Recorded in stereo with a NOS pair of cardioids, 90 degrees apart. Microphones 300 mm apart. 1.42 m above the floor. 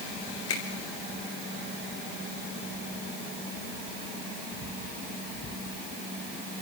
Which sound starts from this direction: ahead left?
A finger snap, at 0.5 s.